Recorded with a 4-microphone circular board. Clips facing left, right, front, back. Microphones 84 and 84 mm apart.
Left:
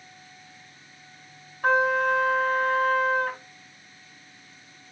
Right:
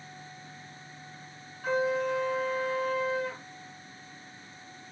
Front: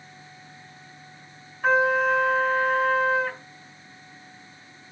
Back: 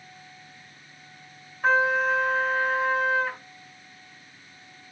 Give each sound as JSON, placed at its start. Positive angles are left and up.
{"t": 1.6, "sound": "a trumpet", "azimuth_deg": 95, "distance_m": 3.0}